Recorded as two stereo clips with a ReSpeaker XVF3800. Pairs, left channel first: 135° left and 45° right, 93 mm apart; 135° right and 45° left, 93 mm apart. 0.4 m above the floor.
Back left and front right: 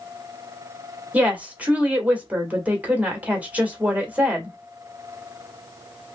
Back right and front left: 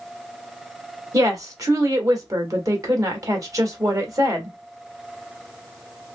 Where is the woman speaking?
20° left, 1.3 m.